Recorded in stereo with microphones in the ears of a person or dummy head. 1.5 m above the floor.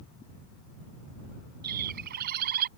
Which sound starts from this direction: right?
A bird, at 1.6 s.